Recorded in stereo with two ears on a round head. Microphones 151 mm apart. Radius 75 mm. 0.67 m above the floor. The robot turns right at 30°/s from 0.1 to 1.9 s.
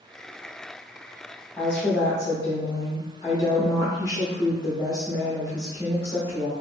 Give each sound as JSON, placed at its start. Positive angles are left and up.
{"t": 1.6, "sound": "a woman speaking", "side_deg": 10, "distance_m": 0.8}